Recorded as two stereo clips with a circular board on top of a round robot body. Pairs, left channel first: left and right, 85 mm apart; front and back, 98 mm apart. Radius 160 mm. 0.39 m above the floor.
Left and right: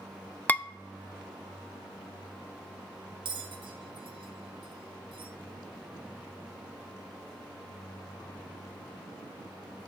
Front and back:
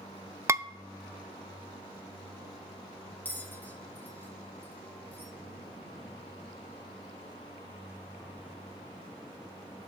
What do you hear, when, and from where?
0.5 s dishes clattering: 145° left, 0.5 m
3.2 s a bell: 75° right, 0.9 m